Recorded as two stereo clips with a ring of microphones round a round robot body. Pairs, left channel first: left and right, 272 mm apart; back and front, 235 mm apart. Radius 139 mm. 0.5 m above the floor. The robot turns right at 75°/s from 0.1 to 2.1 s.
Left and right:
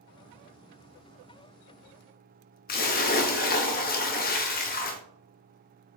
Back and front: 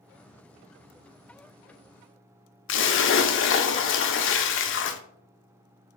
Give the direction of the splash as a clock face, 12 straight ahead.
7 o'clock.